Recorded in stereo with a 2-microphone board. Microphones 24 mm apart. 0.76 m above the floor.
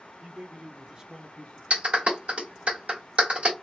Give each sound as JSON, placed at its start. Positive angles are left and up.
{"t": 0.2, "sound": "a man speaking", "side_deg": -70, "distance_m": 1.3}
{"t": 1.7, "sound": "a clap", "side_deg": -70, "distance_m": 1.3}